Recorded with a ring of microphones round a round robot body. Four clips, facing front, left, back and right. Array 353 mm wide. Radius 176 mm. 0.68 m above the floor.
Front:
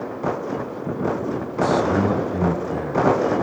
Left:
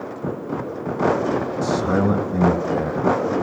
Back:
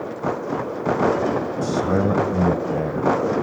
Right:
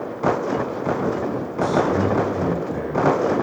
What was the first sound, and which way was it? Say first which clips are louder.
A man speaking: right 2 dB, front 4 dB; 140° left.